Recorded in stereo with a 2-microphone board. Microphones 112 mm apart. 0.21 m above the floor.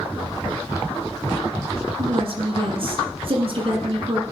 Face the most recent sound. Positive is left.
turn(degrees=-55)  # may be behind; listen again after turning